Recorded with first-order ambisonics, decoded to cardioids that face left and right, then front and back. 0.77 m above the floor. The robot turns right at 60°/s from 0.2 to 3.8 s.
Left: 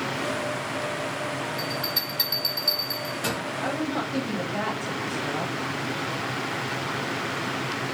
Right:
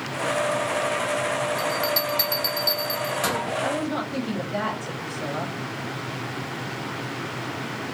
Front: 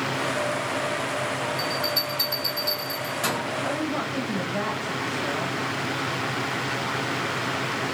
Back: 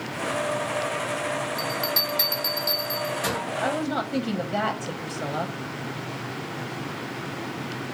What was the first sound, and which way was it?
A bell, 160° right.